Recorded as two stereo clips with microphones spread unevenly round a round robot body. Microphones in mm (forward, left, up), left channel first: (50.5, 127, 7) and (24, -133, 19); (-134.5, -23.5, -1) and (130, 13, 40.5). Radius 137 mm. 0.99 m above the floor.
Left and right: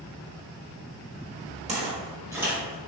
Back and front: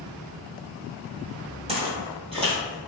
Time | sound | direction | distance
1.7 | footsteps | 45° right | 1.4 m